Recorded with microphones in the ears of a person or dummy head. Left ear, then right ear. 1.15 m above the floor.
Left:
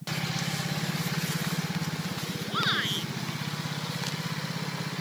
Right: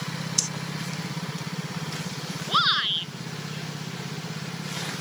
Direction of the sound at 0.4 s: 65° right (ahead or behind).